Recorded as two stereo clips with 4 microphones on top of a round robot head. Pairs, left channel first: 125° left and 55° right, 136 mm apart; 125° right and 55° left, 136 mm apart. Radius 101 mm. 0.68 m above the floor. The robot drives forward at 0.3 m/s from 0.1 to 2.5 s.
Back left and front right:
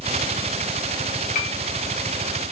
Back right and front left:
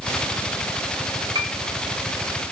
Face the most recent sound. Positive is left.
turn(degrees=120)